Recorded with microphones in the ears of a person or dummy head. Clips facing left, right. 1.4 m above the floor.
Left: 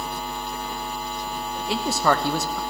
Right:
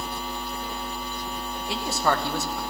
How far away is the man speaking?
About 0.9 m.